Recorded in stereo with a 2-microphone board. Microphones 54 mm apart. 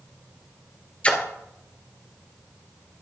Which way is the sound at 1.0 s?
25° left (ahead or behind).